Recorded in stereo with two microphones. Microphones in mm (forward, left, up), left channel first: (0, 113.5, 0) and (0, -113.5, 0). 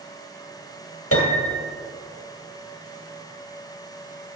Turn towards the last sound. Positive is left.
turn(degrees=80)